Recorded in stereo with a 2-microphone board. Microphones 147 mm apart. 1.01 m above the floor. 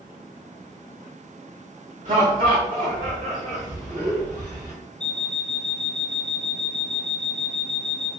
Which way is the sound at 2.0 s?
60° right (ahead or behind).